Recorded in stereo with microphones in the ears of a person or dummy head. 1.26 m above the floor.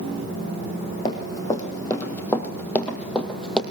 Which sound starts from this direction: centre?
Running footsteps, at 1.1 s.